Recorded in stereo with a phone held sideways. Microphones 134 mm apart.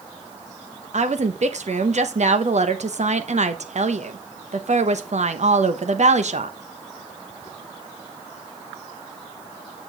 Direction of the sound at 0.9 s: 65° right (ahead or behind).